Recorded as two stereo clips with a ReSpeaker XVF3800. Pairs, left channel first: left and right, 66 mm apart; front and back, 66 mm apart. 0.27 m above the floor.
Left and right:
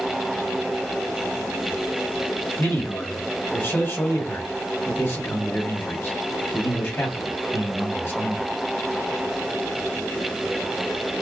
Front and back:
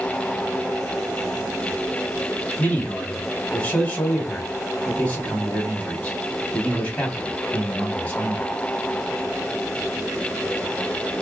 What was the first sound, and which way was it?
A man speaking, 60° left.